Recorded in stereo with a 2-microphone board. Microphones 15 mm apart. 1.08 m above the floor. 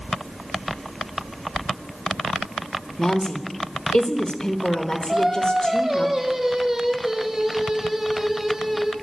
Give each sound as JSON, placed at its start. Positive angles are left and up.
{"t": 3.0, "sound": "a woman speaking", "side_deg": 80, "distance_m": 1.2}
{"t": 5.1, "sound": "singing", "side_deg": -55, "distance_m": 1.7}